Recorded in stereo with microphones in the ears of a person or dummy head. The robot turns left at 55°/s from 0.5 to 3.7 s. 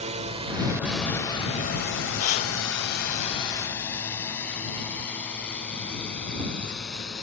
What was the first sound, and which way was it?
A drone, 35° right (ahead or behind).